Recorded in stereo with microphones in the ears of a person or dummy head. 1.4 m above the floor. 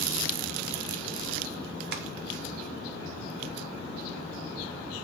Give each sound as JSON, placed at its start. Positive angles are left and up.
{"t": 1.9, "sound": "tapping", "side_deg": -60, "distance_m": 1.6}